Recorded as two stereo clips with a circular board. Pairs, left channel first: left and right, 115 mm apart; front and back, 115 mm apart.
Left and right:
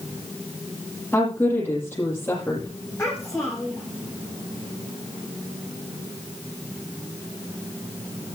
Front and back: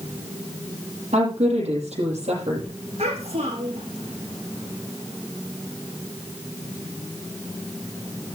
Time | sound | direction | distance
1.1 | a woman speaking | 165° left | 7.5 m
3.0 | a child speaking | 160° left | 6.5 m